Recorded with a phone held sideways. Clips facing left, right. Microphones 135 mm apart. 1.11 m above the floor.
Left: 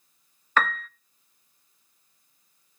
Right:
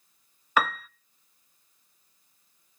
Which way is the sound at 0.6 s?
10° right (ahead or behind).